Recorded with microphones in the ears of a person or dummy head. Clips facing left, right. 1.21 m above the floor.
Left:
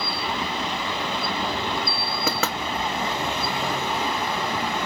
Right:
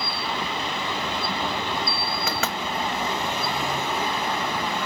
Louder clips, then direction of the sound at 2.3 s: Left 4 dB; 70° left (ahead or behind).